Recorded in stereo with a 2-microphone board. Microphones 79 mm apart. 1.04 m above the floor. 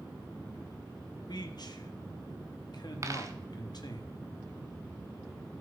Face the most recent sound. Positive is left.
turn(degrees=-40)  # may be behind; listen again after turning